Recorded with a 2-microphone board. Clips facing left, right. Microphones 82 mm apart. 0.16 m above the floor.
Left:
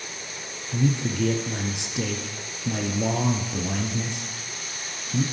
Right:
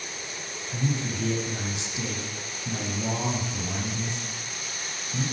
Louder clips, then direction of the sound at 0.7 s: Left 5 dB; 65° left (ahead or behind).